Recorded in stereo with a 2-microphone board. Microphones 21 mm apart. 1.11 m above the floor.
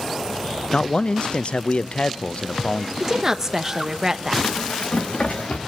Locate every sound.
0.7 s a man speaking: 55° left (ahead or behind), 0.5 m
3.0 s a woman speaking: 20° right (ahead or behind), 1.1 m
4.4 s running footsteps: 70° left (ahead or behind), 3 m; by 5.6 s 65° left (ahead or behind), 4 m